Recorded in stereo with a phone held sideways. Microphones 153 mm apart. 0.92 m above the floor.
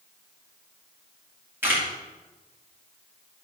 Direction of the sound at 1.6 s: 10° right (ahead or behind).